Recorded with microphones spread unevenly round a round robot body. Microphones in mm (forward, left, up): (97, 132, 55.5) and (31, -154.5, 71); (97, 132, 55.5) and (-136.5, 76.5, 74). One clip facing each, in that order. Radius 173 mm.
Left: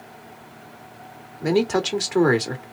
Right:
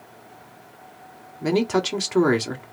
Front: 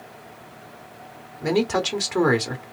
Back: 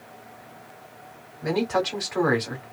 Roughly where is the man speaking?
Ahead.